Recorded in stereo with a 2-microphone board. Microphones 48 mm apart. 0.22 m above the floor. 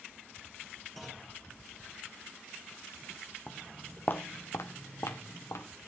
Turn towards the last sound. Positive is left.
turn(degrees=75)  # may be behind; listen again after turning